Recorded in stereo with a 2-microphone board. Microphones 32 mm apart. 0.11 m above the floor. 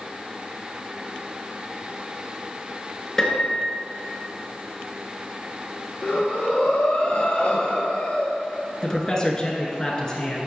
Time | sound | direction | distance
3.2 | a piano | 20° left (ahead or behind) | 1.4 m
6.0 | breathing | 40° left (ahead or behind) | 1.7 m
8.8 | a man speaking | 20° left (ahead or behind) | 1.1 m